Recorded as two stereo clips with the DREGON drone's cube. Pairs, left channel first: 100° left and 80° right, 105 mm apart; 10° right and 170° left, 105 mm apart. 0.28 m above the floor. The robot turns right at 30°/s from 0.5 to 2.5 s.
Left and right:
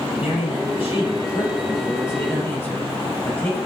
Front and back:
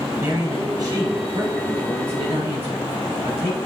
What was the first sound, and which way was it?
A man speaking, 110° left.